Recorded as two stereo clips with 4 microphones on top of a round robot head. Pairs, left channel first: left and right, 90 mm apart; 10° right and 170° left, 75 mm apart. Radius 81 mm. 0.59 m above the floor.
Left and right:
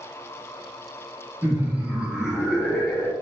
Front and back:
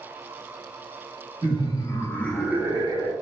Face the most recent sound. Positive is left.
turn(degrees=165)